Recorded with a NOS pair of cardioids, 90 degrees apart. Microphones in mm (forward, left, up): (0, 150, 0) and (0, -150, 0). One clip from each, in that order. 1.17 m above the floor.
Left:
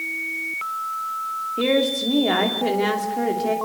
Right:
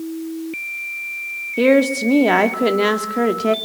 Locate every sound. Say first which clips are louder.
1.6 s a woman speaking: right 6 dB; 45° right, 3 m